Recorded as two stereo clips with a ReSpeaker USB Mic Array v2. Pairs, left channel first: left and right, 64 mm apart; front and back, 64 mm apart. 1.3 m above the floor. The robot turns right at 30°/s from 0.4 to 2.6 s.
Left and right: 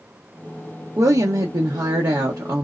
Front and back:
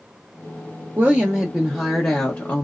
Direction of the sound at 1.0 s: 115° right.